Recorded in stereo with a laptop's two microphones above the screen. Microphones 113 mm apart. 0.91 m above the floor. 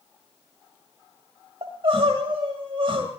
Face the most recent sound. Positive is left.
turn(degrees=-50)  # may be behind; listen again after turning